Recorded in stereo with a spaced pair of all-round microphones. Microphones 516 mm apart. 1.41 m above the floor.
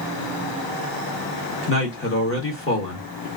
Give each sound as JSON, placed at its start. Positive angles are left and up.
{"t": 1.7, "sound": "a man speaking", "side_deg": 25, "distance_m": 1.7}